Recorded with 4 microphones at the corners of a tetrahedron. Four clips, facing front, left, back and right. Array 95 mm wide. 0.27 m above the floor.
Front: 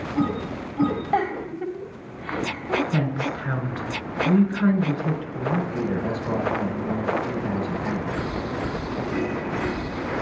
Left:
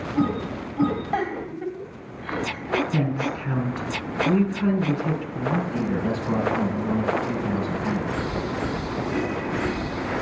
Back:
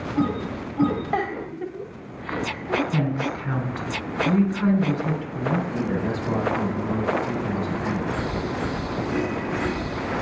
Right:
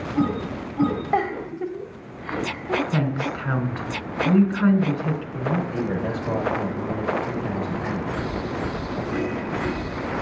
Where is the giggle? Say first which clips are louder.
Right 3 dB, front 2 dB; 100° right, 0.9 m.